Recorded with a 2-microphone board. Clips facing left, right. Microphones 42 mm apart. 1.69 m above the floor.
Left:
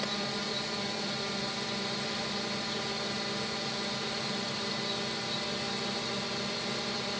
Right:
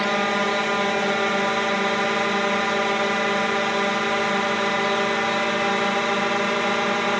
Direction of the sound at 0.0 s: 60° right (ahead or behind).